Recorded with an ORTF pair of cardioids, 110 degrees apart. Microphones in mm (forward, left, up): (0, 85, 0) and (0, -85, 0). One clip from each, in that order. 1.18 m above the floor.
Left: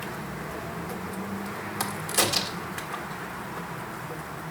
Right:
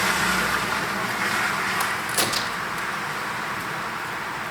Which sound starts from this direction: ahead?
A crack, at 1.8 s.